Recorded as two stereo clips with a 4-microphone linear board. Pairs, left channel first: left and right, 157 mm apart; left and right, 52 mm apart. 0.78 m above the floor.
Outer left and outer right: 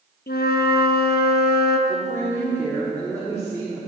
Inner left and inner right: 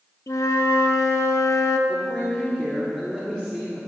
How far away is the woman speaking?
About 1.4 m.